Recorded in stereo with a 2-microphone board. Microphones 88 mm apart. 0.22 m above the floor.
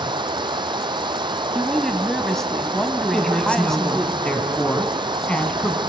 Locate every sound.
0.0 s running water: 65° right (ahead or behind), 0.8 m
1.6 s a woman speaking: 5° left (ahead or behind), 1.3 m
3.1 s a woman speaking: 15° left (ahead or behind), 1.9 m